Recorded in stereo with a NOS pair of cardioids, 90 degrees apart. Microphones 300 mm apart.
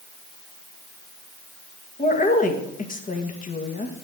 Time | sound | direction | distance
2.0 | a woman speaking | 30° left | 1.9 m